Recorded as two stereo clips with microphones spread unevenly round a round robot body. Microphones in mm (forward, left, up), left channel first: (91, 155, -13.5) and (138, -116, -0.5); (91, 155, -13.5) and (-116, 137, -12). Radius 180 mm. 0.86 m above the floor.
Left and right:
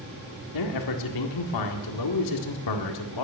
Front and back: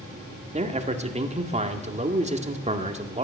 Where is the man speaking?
125° left, 1.8 m.